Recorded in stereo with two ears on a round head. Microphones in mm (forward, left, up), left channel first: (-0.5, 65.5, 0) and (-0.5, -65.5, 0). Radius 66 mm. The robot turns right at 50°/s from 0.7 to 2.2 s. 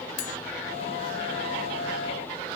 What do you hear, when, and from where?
0.2 s cutlery clinking: 55° left (ahead or behind), 1.2 m